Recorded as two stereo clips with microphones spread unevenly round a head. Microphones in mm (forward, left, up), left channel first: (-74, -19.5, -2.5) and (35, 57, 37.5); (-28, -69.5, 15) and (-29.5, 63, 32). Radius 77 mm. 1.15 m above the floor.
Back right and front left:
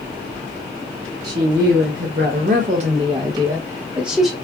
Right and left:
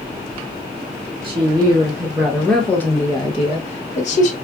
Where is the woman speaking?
35° left, 1.2 m; by 4.3 s 55° right, 1.2 m.